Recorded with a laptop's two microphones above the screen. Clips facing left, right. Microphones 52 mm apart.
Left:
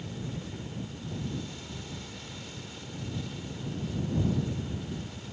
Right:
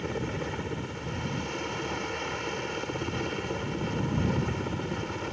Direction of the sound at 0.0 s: 55° right (ahead or behind).